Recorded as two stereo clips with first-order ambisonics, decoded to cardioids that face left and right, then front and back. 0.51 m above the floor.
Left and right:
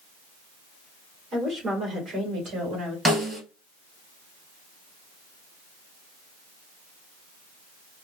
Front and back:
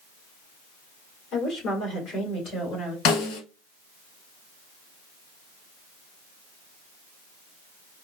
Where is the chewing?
I don't hear chewing.